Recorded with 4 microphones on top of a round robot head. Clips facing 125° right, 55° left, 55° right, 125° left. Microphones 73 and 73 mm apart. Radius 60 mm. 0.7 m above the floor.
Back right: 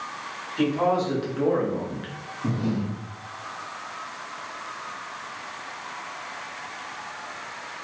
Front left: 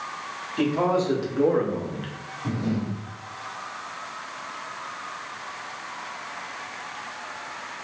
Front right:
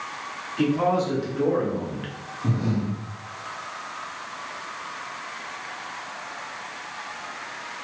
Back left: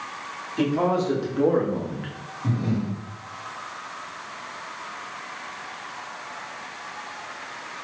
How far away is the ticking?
No ticking in this recording.